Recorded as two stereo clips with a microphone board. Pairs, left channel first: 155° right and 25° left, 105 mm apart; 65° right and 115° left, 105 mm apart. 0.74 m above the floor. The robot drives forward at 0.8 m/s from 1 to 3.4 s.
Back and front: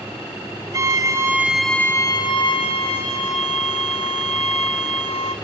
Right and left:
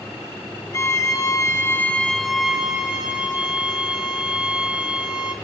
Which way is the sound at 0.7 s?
20° right.